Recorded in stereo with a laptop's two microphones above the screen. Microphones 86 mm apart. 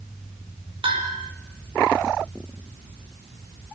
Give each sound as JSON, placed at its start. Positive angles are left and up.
{"t": 0.8, "sound": "a bell", "side_deg": -80, "distance_m": 5.0}